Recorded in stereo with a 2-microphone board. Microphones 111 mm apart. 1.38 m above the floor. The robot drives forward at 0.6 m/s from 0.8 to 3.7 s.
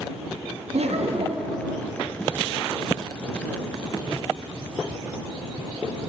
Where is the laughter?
75° right (ahead or behind), 0.9 m; by 1.6 s 50° right (ahead or behind), 1.1 m.